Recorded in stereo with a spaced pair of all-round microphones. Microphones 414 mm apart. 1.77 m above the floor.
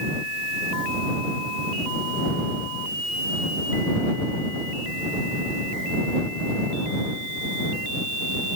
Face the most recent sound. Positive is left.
No sound to turn to.